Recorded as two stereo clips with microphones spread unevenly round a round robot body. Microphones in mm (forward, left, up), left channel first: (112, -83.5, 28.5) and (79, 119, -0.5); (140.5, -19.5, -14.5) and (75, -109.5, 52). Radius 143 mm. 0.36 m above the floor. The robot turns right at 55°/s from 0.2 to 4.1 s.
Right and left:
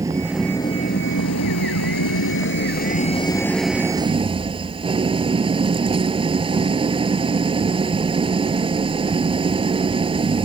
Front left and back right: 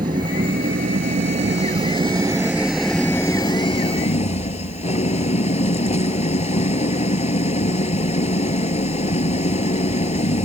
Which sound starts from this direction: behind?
An engine running, at 0.0 s.